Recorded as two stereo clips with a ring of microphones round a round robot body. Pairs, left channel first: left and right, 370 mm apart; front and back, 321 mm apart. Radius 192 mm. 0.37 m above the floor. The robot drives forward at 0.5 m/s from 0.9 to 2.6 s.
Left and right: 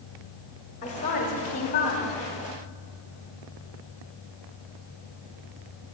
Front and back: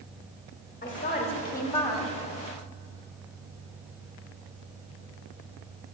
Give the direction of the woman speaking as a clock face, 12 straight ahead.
11 o'clock.